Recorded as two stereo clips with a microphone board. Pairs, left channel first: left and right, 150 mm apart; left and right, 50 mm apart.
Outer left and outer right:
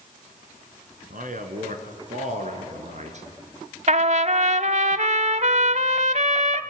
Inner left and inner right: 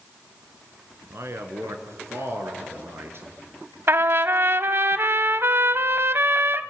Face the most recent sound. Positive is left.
turn(degrees=-55)  # may be behind; listen again after turning